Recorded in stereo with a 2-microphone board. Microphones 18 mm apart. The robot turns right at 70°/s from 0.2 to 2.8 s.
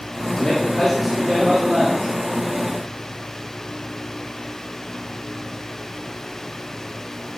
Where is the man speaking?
140° left, 5 m; by 2.1 s 100° right, 5 m.